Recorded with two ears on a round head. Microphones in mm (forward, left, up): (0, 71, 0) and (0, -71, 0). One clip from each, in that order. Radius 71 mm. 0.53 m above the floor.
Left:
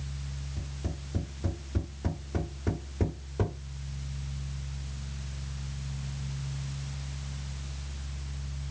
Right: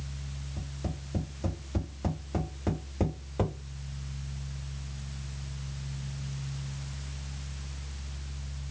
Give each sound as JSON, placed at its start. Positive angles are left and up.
{"t": 0.6, "sound": "tapping", "side_deg": -45, "distance_m": 1.8}